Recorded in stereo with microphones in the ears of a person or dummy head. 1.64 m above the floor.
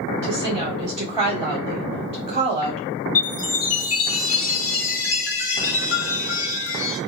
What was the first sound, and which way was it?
A woman speaking, 30° right (ahead or behind).